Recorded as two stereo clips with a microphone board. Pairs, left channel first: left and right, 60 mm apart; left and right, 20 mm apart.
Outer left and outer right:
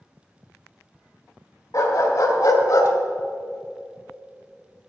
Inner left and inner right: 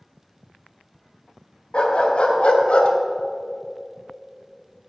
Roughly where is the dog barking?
Left.